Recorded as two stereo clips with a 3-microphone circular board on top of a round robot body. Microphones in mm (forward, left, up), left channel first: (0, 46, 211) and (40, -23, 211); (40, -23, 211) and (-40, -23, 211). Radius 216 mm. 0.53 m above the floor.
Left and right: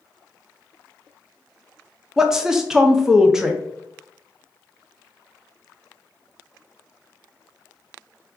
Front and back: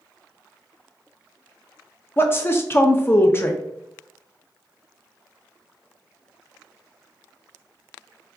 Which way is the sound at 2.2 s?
20° left.